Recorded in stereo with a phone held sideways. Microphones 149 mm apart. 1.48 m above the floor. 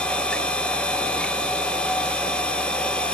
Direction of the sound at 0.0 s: 5° left (ahead or behind).